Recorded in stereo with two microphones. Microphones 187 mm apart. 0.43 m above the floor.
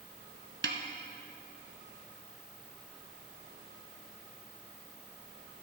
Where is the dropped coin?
I don't hear a dropped coin.